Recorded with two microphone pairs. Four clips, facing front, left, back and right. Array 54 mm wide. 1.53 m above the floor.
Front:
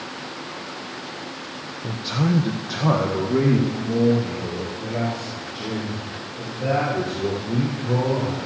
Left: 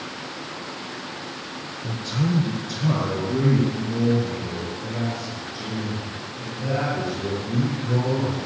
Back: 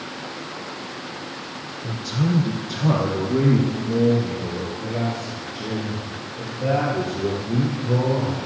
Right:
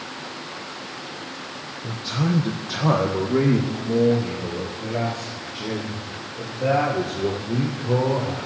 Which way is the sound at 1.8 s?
10° right.